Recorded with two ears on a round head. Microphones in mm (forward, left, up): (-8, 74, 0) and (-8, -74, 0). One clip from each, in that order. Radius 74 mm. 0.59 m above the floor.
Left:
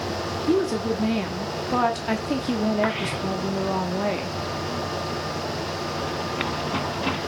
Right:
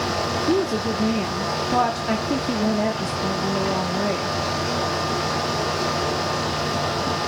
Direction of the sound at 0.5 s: 20° left (ahead or behind).